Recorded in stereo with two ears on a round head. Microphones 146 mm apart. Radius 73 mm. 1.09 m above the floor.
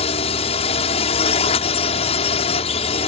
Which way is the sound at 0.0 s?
40° left (ahead or behind).